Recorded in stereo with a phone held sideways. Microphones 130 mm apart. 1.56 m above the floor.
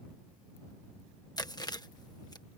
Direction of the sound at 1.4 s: 30° left (ahead or behind).